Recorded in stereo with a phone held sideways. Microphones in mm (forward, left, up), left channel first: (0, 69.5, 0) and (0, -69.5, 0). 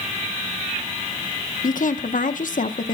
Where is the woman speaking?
70° left (ahead or behind), 1.0 m.